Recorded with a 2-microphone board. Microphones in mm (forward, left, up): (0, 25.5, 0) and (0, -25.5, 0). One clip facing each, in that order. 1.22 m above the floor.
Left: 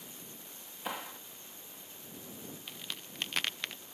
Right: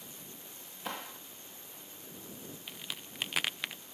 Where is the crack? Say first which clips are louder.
Right 2 dB; 5° right (ahead or behind).